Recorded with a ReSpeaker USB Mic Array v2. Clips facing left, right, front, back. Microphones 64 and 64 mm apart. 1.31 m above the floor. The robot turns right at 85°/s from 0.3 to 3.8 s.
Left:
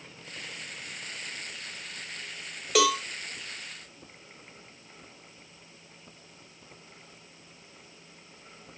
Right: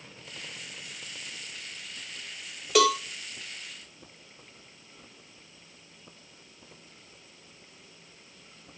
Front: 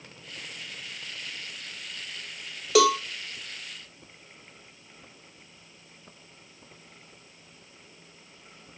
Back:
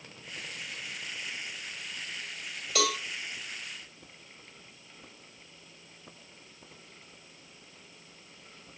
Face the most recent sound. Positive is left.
turn(degrees=90)